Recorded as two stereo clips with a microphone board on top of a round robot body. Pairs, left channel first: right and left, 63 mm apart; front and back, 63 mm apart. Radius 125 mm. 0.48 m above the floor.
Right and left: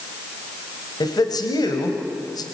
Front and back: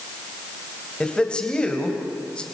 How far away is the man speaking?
About 3 m.